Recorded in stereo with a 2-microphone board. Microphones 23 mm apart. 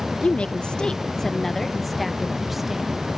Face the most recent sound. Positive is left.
turn(degrees=-15)  # may be behind; listen again after turning